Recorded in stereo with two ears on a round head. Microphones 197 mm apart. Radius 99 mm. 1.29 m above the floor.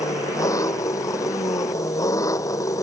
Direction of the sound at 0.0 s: 15° left (ahead or behind).